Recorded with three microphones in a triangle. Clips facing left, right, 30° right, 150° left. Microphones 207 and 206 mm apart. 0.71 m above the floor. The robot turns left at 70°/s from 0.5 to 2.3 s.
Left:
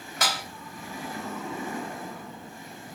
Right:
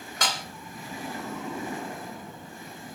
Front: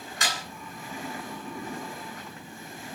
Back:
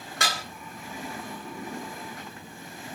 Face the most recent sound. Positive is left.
turn(degrees=50)